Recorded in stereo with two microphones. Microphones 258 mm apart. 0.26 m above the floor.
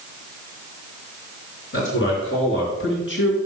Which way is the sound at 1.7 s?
45° left (ahead or behind).